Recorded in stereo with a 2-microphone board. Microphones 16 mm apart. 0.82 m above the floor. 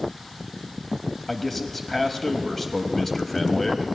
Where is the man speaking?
15° left (ahead or behind), 0.7 m.